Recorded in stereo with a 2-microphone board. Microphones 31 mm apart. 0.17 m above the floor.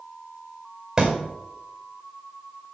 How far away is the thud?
About 2.0 m.